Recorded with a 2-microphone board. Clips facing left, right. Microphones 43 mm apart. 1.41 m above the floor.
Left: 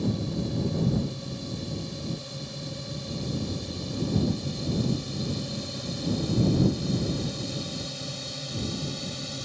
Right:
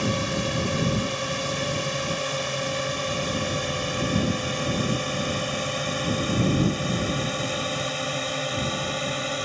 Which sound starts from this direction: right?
A drone, at 0.0 s.